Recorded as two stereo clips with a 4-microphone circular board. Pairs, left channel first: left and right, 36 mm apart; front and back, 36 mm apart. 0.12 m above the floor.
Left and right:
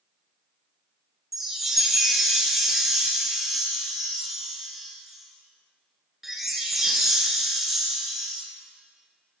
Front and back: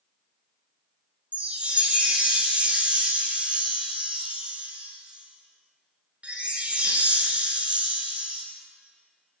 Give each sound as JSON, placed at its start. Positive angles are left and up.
{"t": 1.3, "sound": "a chime", "azimuth_deg": -165, "distance_m": 1.4}